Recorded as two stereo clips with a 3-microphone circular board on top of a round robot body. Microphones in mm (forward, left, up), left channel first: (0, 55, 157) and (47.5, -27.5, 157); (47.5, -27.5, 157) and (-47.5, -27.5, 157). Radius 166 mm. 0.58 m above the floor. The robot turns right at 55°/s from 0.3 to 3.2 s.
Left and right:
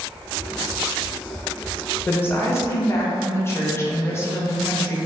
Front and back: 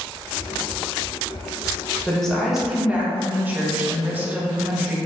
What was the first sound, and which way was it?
A woman speaking, 75° left.